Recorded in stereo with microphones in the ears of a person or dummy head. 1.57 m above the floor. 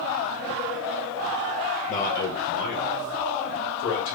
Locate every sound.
1.9 s a man speaking: 35° left (ahead or behind), 0.7 m; by 4.2 s 65° left (ahead or behind), 1.6 m